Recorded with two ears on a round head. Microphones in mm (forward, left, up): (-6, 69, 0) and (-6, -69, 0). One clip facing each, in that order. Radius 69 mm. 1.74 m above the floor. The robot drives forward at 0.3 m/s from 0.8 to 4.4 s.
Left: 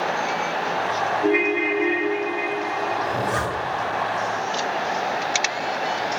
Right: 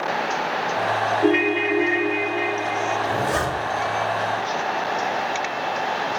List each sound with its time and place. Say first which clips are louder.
1.2 s a ringtone: right 1 dB; 35° right (ahead or behind), 0.7 m; by 2.9 s 25° right (ahead or behind), 1.0 m
3.0 s a zipper: right 1 dB; 25° right (ahead or behind), 0.6 m; by 3.8 s 20° right (ahead or behind), 0.7 m